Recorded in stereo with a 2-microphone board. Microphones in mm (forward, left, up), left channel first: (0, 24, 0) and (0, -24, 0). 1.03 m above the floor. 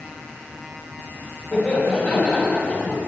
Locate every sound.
1.5 s laughter: 25° left (ahead or behind), 3.5 m; by 3.0 s 40° left (ahead or behind), 3 m